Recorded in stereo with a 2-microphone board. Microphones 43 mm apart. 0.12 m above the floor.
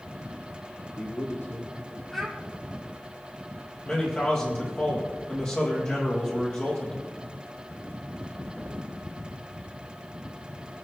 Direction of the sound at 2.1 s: 5° left (ahead or behind).